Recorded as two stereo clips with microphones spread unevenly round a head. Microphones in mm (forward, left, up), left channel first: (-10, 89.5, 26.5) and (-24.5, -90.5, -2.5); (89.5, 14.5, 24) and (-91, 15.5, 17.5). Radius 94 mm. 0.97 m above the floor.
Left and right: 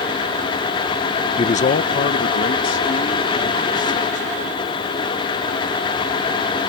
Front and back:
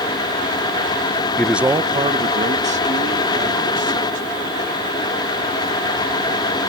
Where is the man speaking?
65° left; by 5.1 s 135° left.